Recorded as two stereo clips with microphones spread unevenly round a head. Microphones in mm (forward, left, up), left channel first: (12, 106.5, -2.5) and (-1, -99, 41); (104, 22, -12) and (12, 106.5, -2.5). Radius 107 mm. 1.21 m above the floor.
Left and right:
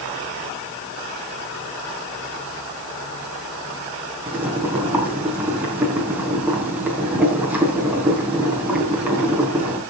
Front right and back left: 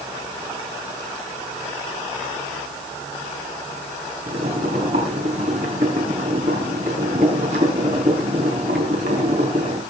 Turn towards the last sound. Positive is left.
turn(degrees=-175)